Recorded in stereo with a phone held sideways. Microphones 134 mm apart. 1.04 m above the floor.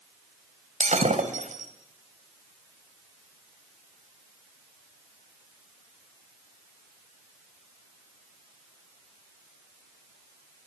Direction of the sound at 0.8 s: 70° right (ahead or behind).